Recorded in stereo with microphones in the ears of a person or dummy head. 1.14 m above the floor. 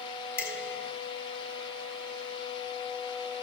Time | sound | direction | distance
0.4 | dishes clattering | 15° left (ahead or behind) | 7.5 m